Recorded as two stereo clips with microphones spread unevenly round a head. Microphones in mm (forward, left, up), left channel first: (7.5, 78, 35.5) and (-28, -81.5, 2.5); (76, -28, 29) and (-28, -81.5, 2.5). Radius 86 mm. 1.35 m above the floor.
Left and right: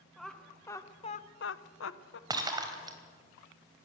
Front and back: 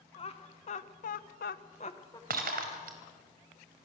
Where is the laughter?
15° right, 2 m; by 2.2 s 105° left, 1.3 m.